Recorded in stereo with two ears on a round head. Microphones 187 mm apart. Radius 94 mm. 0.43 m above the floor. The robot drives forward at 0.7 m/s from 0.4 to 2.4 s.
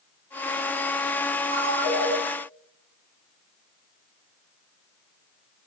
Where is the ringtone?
35° right (ahead or behind), 2 m; by 2.1 s 30° right (ahead or behind), 2.5 m.